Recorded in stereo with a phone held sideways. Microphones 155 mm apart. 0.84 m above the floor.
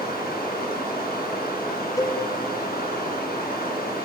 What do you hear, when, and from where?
0.0 s running water: 75° left (ahead or behind), 6 m
2.0 s a cowbell: 25° left (ahead or behind), 2 m